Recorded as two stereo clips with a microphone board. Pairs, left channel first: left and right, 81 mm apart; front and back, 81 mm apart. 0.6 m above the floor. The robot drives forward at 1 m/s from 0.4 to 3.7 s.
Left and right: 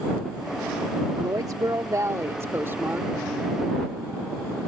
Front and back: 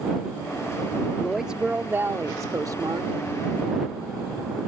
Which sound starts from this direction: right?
A woman speaking, at 1.2 s.